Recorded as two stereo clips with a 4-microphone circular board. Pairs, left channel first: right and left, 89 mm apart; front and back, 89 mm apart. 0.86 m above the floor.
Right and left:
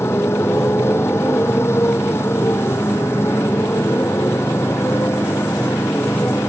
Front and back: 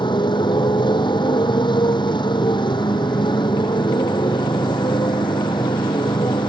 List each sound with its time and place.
0.0 s a motorcycle: 30° right